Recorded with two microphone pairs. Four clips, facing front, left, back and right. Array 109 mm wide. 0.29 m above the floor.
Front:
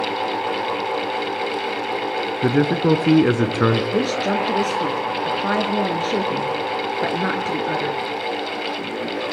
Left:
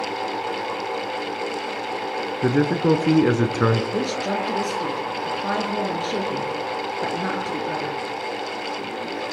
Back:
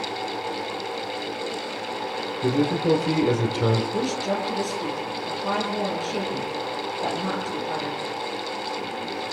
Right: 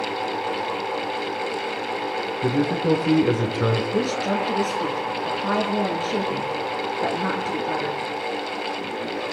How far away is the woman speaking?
About 5.5 m.